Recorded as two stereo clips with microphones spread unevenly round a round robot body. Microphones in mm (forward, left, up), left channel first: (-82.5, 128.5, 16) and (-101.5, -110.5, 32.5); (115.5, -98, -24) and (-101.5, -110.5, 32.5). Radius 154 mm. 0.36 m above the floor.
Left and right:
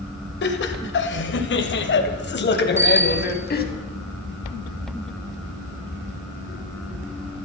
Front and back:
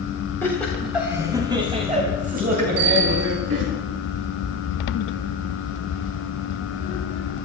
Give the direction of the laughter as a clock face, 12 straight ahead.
10 o'clock.